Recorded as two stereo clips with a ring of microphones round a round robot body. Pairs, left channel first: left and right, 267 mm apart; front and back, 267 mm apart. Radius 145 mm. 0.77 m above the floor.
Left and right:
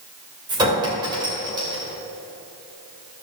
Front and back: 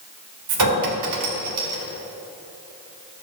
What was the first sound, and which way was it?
A clink, 165° right.